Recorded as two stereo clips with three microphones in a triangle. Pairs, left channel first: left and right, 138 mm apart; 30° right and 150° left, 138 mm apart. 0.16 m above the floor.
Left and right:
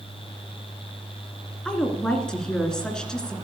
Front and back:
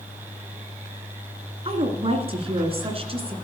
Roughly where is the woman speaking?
Behind.